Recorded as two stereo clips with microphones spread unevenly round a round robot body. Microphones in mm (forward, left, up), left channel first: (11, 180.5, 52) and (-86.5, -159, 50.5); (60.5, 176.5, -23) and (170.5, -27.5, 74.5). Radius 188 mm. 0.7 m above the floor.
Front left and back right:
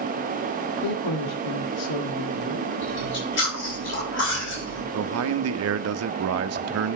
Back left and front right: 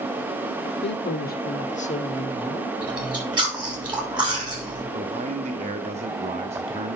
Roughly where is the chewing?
Ahead.